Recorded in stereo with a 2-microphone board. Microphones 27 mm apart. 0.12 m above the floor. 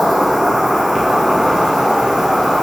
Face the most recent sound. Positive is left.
turn(degrees=-20)  # may be behind; listen again after turning